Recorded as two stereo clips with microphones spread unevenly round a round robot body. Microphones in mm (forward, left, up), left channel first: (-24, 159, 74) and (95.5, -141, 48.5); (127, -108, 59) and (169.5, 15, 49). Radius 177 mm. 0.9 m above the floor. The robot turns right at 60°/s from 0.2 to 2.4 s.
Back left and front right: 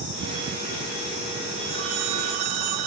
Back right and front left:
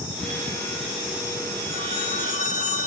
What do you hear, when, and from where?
1.7 s a phone ringing: 135° right, 0.8 m; by 2.9 s 90° right, 0.8 m